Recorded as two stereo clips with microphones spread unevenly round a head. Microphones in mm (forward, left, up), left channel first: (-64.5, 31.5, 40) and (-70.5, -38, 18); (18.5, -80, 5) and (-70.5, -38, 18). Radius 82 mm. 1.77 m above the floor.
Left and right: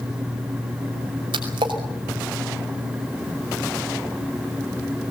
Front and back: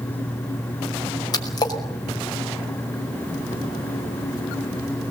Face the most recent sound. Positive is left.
turn(degrees=-75)